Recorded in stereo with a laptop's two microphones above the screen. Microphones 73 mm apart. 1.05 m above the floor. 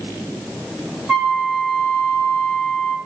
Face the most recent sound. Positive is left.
turn(degrees=0)  # may be behind; listen again after turning